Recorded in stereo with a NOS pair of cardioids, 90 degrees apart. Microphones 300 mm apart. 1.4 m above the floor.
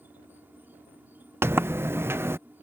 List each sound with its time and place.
0.0 s an insect: 5° right
1.4 s a sliding door: 10° right